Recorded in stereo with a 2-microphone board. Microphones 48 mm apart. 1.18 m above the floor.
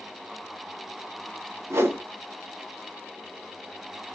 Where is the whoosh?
60° right (ahead or behind), 1.0 m.